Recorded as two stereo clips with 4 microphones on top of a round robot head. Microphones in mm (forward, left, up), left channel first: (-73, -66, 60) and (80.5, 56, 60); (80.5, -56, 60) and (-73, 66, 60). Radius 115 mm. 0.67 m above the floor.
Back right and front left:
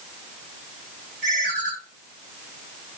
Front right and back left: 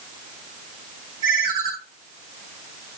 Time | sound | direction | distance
1.2 | a ringtone | 75° left | 6.5 m